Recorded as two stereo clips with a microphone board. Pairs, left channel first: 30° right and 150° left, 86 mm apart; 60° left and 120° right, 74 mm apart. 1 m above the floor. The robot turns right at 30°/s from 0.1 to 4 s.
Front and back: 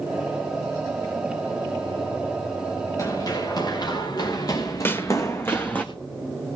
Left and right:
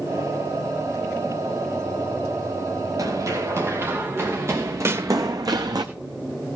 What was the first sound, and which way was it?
Running footsteps, 80° right.